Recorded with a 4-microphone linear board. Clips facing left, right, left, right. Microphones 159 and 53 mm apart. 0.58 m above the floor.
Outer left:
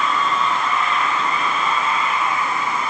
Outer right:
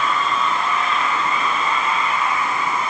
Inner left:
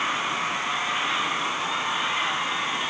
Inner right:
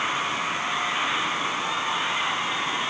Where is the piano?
I don't hear a piano.